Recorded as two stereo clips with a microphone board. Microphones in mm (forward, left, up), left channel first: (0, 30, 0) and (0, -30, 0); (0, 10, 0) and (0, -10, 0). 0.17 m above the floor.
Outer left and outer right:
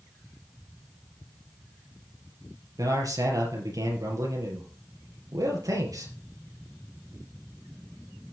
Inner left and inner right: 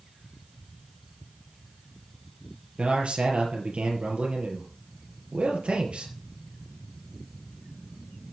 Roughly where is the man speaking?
Right.